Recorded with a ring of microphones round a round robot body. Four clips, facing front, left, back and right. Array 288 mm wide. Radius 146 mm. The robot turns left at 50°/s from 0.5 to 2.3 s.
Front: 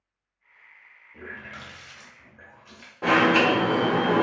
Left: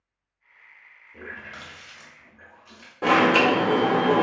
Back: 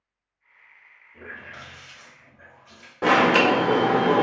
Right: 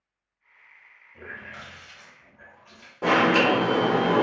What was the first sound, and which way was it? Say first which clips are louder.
A running tap: left 1 dB, even; 70° left.